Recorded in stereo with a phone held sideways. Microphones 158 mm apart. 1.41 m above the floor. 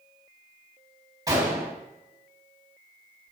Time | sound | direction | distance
1.3 | a gunshot | 25° right (ahead or behind) | 3 m